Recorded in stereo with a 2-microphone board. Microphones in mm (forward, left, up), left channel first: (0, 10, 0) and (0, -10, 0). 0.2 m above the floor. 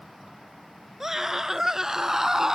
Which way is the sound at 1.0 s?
20° right (ahead or behind).